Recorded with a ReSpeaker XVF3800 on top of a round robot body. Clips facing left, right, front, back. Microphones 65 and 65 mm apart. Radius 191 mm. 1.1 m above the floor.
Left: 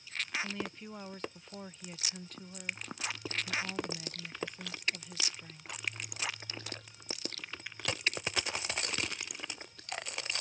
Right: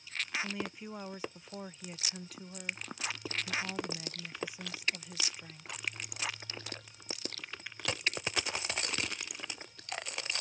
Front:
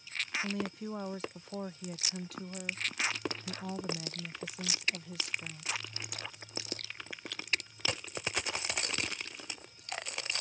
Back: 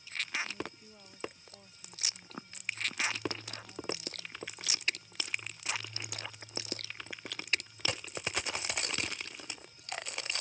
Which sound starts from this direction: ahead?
A woman speaking, at 0.4 s.